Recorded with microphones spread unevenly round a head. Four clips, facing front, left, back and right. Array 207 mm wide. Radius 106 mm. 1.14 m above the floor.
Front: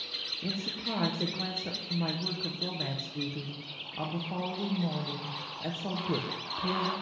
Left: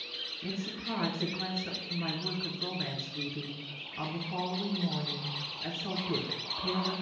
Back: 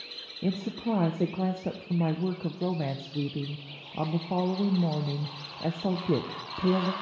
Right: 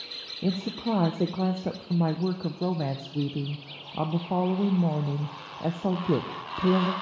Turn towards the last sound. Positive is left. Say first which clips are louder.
# right 10 dB, back 7 dB
turn(degrees=-115)